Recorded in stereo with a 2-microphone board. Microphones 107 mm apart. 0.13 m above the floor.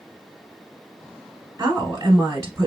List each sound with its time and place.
1.6 s a woman speaking: 25° right (ahead or behind), 1.2 m